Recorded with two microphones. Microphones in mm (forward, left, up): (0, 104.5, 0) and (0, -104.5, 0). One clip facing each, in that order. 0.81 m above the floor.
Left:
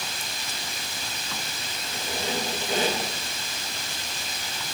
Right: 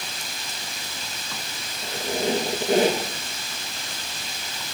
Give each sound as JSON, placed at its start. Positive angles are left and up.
{"t": 1.8, "sound": "a squeak", "side_deg": -65, "distance_m": 4.5}